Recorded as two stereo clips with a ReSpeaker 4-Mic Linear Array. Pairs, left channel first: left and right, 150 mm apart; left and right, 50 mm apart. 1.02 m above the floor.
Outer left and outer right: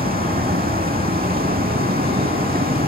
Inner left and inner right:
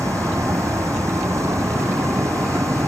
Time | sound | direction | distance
0.0 | a vehicle | 85° right | ?